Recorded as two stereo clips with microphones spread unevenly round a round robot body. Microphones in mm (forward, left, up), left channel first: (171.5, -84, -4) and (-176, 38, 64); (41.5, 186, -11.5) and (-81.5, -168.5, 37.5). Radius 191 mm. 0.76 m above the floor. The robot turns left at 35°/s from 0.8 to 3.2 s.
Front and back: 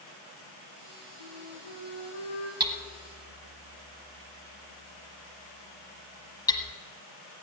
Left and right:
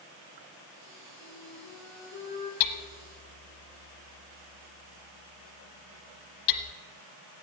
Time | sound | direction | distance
1.2 | a flute | 5° left | 4 m
2.6 | hammering | 85° left | 1.2 m